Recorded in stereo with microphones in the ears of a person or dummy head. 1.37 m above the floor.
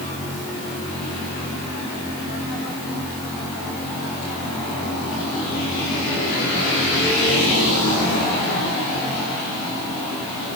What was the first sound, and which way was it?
Only background noise.